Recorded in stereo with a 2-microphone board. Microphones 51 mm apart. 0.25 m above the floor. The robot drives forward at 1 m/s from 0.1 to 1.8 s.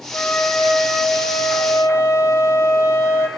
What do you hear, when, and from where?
0.1 s a flute: 45° left (ahead or behind), 6.5 m; by 3.3 s 55° left (ahead or behind), 5.5 m